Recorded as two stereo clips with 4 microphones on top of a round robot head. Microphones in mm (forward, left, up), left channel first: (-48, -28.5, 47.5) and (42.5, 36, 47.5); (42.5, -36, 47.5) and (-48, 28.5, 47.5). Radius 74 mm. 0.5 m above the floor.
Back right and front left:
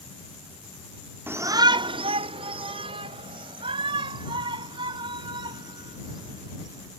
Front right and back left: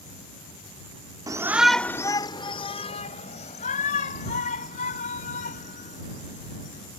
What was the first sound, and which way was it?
A shout, 100° left.